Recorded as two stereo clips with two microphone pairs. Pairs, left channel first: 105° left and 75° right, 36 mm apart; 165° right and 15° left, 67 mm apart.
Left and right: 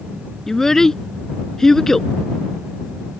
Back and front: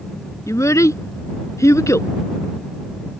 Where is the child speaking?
Straight behind.